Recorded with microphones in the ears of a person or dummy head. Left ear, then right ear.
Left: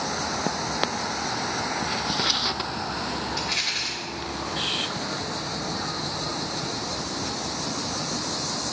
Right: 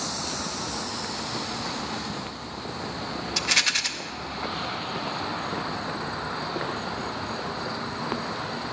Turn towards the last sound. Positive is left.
turn(degrees=-55)  # may be behind; listen again after turning